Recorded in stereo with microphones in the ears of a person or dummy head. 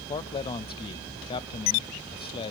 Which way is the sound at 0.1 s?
30° left (ahead or behind).